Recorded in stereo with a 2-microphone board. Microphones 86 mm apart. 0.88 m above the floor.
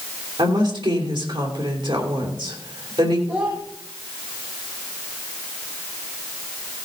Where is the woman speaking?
70° right (ahead or behind), 3 m.